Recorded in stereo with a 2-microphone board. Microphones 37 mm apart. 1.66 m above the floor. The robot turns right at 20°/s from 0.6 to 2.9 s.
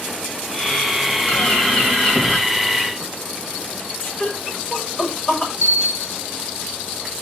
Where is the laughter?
30° left (ahead or behind), 6.5 m.